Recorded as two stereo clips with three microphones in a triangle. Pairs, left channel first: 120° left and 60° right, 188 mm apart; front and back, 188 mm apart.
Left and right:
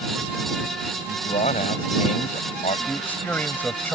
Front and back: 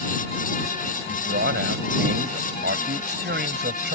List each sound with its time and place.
1.1 s a man speaking: 170° left
2.9 s a man speaking: 160° right